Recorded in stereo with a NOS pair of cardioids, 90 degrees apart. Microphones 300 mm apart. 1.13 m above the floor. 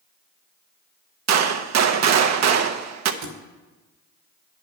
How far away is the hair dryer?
No hair dryer in this recording.